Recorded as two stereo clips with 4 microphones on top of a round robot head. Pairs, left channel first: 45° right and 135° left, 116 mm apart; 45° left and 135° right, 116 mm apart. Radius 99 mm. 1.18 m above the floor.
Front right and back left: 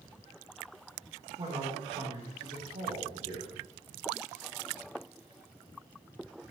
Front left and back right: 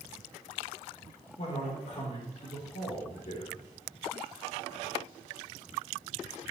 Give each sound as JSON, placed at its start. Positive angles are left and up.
{"t": 1.4, "sound": "a man speaking", "azimuth_deg": 85, "distance_m": 4.0}